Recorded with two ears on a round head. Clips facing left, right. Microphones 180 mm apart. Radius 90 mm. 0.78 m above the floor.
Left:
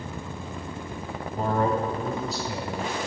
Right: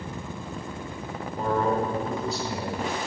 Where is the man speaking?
10° left (ahead or behind), 2.5 m; by 3.0 s 5° right (ahead or behind), 3.5 m.